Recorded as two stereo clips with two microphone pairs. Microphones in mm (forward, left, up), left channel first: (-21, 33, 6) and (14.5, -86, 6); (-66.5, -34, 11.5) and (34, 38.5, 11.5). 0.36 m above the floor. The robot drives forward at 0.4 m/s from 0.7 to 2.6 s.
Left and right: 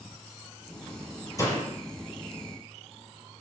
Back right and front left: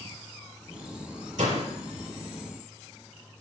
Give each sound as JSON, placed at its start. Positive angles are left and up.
{"t": 1.4, "sound": "a door slam", "azimuth_deg": 45, "distance_m": 6.0}